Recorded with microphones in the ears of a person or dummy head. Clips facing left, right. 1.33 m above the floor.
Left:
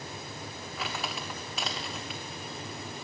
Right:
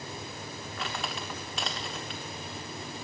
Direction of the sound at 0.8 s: 5° left (ahead or behind).